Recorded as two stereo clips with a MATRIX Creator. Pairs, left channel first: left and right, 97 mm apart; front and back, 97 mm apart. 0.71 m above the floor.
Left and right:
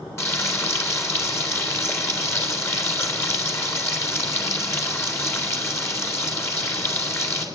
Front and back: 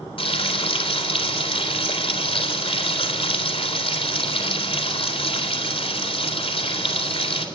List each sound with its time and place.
0.2 s frying: 30° left, 3.5 m